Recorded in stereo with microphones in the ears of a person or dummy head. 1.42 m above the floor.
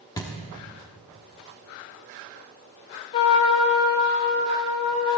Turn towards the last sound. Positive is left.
turn(degrees=20)  # may be behind; listen again after turning